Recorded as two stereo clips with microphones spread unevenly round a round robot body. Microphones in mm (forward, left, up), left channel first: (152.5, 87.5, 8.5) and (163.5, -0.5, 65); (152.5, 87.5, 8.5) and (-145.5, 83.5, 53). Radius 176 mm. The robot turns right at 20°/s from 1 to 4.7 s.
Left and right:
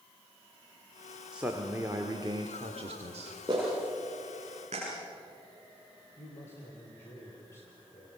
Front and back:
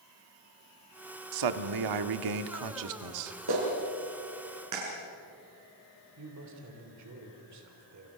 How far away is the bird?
I don't hear a bird.